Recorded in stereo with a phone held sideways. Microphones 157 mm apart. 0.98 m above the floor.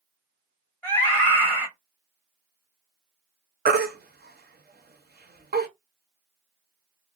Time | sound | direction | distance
0.8 | a scream | 15° left (ahead or behind) | 1.6 m
3.6 | a baby crying | 80° right | 0.7 m